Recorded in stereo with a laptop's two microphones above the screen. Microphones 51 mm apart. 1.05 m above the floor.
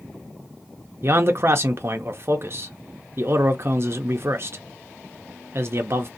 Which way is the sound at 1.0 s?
45° right (ahead or behind).